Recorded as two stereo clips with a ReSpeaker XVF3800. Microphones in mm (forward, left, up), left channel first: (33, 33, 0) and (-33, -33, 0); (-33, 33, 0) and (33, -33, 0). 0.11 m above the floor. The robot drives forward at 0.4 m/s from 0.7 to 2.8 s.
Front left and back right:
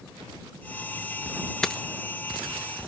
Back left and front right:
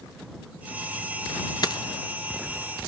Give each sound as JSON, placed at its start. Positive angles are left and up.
{"t": 1.6, "sound": "a dropped coin", "azimuth_deg": 125, "distance_m": 1.0}